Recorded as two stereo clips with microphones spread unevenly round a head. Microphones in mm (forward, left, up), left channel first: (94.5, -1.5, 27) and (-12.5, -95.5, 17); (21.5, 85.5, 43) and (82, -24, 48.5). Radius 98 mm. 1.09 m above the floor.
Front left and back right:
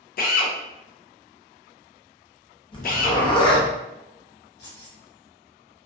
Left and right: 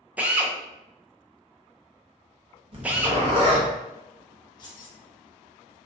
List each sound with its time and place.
0.2 s a drill: 20° left, 0.6 m
2.7 s a zipper: 15° right, 0.8 m
4.6 s keys jangling: 65° left, 0.9 m